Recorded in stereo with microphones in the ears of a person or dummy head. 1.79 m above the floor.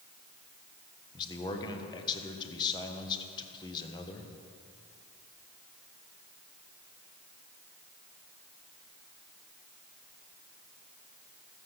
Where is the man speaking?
25° left (ahead or behind), 1.2 m.